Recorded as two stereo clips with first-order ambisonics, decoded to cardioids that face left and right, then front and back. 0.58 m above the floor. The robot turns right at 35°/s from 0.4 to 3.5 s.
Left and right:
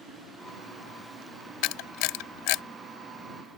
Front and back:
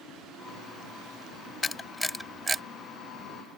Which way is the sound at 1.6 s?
70° left.